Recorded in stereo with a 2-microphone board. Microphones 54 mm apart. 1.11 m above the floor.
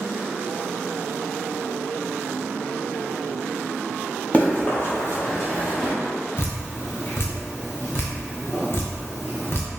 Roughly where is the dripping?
Left.